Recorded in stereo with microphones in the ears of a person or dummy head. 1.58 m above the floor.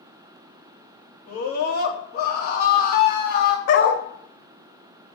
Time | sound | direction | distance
1.3 | a scream | 40° left (ahead or behind) | 2.5 m
3.7 | a dog barking | 55° left (ahead or behind) | 1.7 m